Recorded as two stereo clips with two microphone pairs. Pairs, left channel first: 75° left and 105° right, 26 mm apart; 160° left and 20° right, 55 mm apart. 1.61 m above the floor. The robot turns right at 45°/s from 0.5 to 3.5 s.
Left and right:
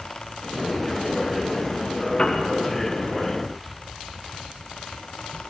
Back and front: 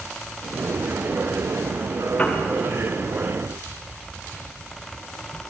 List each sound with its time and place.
2.2 s a piano: 105° left, 1.2 m; by 2.4 s 115° left, 1.2 m